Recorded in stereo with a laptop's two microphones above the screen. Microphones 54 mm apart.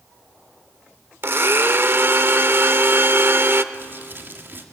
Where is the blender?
45° right (ahead or behind), 0.8 m.